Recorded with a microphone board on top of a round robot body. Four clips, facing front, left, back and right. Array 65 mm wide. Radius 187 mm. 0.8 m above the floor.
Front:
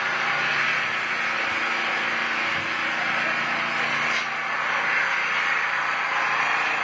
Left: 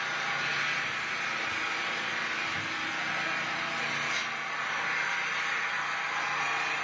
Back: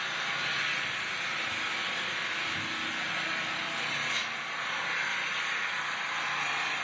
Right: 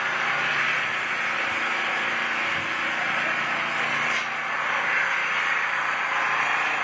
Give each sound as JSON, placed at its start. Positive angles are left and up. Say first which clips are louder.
{"t": 0.0, "sound": "an engine running", "louder": "right 7 dB, front 9 dB", "azimuth_deg": -45, "distance_m": 0.7}